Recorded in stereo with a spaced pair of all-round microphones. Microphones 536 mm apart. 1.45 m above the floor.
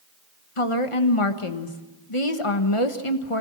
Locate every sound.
0.6 s a woman speaking: 75° left (ahead or behind), 1.5 m